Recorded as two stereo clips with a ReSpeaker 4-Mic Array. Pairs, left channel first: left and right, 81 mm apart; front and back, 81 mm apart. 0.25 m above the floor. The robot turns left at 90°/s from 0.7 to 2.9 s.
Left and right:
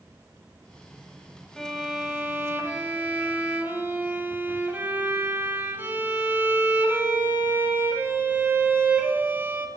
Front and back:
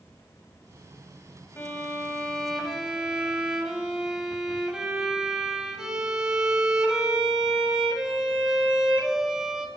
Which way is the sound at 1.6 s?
15° left.